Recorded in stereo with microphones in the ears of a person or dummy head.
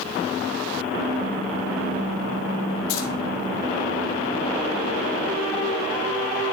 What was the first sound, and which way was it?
Keys jangling, 75° left (ahead or behind).